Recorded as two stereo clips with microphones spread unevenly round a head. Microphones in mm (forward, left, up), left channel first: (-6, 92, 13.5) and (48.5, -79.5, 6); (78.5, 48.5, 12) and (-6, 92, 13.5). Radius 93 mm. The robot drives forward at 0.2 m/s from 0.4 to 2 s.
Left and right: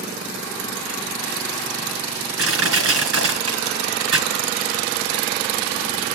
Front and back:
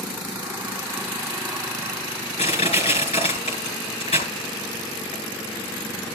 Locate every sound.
2.4 s crushing: 80° right, 3.5 m